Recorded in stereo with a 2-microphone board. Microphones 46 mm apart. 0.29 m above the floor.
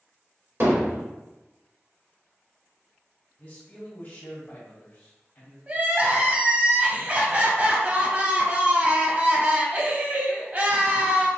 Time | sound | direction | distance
0.6 | hammering | 60° right (ahead or behind) | 1.9 m
3.4 | a man speaking | 40° left (ahead or behind) | 1.4 m
5.7 | crying | 35° right (ahead or behind) | 0.7 m